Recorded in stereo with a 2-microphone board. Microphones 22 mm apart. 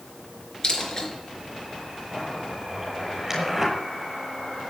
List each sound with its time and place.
0.6 s a dropped coin: 30° left (ahead or behind), 4 m
2.1 s a zipper: 15° right (ahead or behind), 7 m